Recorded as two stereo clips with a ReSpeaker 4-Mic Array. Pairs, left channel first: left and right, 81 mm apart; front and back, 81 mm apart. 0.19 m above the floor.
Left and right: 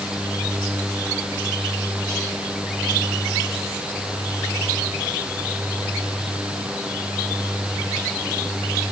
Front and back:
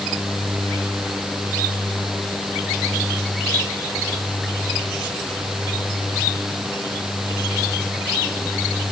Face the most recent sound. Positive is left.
No sound to turn to.